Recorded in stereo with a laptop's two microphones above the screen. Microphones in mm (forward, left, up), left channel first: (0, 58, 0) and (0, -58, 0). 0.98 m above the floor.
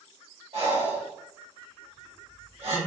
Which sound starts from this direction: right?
Breathing, at 0.5 s.